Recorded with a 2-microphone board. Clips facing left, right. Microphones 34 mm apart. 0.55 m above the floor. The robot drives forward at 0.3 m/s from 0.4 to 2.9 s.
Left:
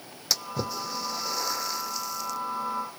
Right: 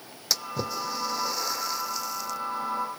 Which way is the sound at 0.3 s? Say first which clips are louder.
Even; centre (ahead or behind).